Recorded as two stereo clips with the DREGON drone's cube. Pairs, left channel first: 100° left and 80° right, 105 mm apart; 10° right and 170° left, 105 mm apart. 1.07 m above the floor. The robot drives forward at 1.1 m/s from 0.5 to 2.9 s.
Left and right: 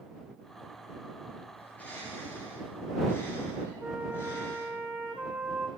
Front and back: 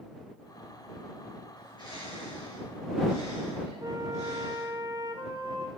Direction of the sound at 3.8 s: 150° right.